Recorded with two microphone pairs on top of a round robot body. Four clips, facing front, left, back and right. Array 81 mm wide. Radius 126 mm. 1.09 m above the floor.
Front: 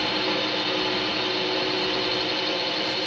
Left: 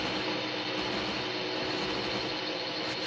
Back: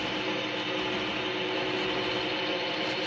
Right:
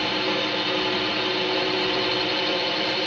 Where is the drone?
55° right; by 3.1 s 80° right.